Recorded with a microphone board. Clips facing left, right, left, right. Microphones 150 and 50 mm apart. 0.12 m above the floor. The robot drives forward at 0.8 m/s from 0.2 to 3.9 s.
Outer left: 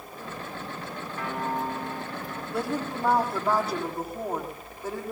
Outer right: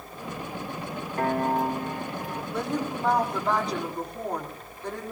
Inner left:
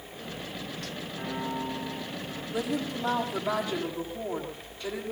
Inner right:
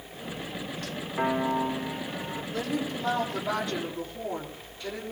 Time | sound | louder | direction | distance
1.2 | a piano | outer right 6 dB, inner right 8 dB | 45° right (ahead or behind) | 5.5 m
2.5 | a woman speaking | even, inner left 1 dB | 10° left (ahead or behind) | 4 m